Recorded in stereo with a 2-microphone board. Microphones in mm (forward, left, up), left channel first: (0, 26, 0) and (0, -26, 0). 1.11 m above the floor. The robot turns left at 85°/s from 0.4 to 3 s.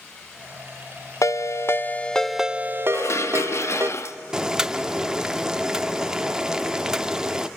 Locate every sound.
1.2 s a ringtone: 90° left, 0.5 m; by 3.9 s 60° right, 0.5 m
2.9 s dishes clattering: 65° left (ahead or behind), 0.8 m; by 4.2 s 60° left (ahead or behind), 0.8 m
4.3 s boiling: 15° right (ahead or behind), 0.6 m